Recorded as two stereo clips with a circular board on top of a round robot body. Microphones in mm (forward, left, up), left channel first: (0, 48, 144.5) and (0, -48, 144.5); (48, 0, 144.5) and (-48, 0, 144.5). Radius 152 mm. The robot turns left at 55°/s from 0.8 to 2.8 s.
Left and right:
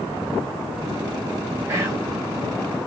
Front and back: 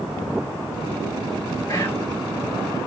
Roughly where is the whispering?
Ahead right.